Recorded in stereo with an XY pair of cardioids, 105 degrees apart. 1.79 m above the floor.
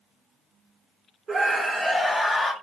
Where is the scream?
40° right, 0.8 m; by 2.5 s 35° left, 1.0 m.